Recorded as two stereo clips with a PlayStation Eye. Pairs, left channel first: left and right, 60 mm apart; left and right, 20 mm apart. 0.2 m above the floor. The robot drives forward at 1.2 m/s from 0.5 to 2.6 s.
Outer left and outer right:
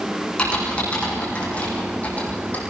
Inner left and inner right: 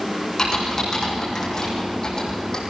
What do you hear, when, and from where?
0.4 s typing on a keyboard: 20° left (ahead or behind), 7.5 m; by 2.6 s 30° left (ahead or behind), 5 m